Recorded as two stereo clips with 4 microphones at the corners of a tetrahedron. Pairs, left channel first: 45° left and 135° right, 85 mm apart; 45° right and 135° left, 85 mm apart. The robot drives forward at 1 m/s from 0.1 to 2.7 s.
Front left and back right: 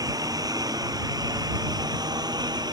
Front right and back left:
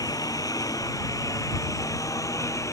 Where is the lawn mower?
90° right; by 2.7 s 100° right.